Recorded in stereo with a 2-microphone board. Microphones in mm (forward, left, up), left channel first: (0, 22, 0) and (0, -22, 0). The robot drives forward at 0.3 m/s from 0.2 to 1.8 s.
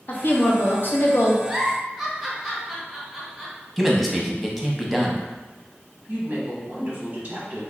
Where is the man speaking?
Centre (ahead or behind), 0.6 m.